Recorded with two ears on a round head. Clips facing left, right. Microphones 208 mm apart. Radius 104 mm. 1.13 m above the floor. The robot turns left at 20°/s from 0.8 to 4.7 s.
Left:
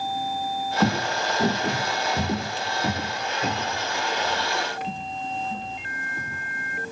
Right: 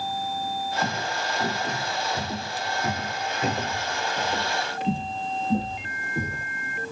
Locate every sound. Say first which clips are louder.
0.8 s footsteps: left 10 dB; 55° left (ahead or behind), 1.9 m; by 6.5 s 35° right (ahead or behind), 1.9 m